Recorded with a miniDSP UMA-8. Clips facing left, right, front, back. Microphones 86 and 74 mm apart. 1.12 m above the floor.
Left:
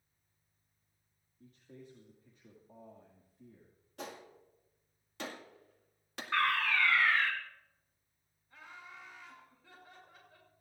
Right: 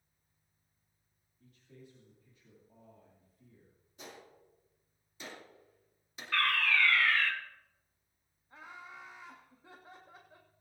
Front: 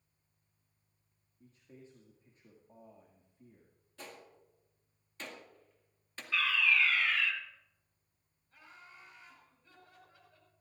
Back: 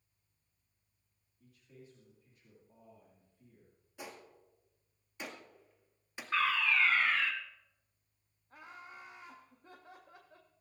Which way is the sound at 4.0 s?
105° left.